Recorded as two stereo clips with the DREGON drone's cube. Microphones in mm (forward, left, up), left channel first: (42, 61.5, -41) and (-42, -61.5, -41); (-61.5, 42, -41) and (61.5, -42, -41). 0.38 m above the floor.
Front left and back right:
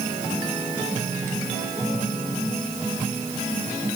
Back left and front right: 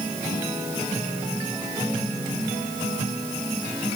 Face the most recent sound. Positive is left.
No sound to turn to.